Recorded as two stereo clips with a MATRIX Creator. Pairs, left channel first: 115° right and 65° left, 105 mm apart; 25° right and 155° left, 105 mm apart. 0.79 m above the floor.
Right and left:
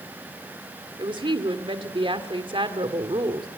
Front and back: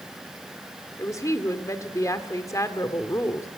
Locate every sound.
1.0 s a woman speaking: 35° left, 2 m